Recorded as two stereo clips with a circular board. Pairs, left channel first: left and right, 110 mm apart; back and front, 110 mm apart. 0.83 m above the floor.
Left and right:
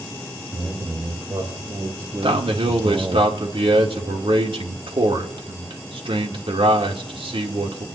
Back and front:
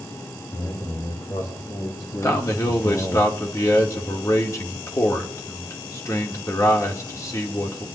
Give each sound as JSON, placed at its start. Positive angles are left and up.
{"t": 0.5, "sound": "a man speaking", "azimuth_deg": -150, "distance_m": 4.0}
{"t": 2.2, "sound": "a man speaking", "azimuth_deg": -120, "distance_m": 1.9}